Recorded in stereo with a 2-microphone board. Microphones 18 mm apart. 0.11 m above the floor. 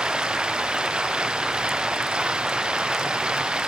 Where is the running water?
75° right (ahead or behind).